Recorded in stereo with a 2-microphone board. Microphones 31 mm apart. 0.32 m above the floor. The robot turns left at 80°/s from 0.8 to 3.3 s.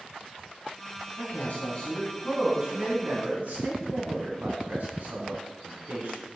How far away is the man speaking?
About 2.5 m.